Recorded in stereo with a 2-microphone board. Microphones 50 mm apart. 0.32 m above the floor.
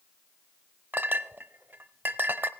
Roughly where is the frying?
No frying in this recording.